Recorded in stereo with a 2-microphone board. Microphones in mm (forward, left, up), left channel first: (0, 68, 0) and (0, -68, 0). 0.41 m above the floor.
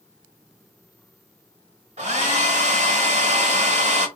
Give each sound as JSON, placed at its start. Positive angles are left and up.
{"t": 2.0, "sound": "a hair dryer", "side_deg": -60, "distance_m": 1.1}